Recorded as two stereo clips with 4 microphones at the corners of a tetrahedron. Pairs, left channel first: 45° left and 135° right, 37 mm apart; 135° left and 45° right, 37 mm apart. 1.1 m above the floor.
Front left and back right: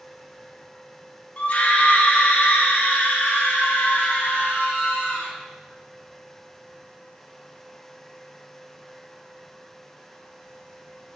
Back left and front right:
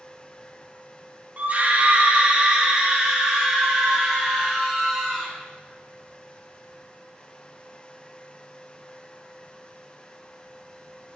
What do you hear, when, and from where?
1.4 s a scream: straight ahead, 2.5 m; by 5.3 s 40° left, 6 m